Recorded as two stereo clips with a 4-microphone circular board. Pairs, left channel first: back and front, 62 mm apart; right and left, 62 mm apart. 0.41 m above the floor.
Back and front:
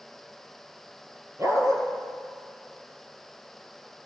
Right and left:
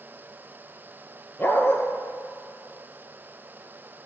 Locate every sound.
1.4 s a dog barking: 35° right, 2 m